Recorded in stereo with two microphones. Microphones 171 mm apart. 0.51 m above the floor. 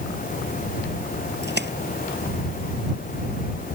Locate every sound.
1.4 s a splash: 70° right (ahead or behind)